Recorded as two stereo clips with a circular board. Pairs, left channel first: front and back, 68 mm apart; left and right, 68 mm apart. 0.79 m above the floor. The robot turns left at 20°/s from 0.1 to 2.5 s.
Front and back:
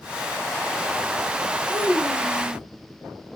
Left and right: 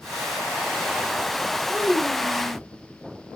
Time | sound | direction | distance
1.7 | a child speaking | 5° left | 2.5 m